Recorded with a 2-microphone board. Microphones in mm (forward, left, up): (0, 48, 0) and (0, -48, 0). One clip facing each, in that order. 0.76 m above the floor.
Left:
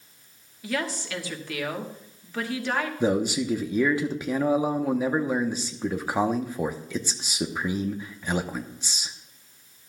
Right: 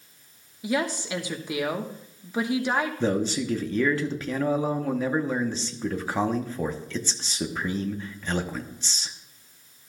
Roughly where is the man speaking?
Centre.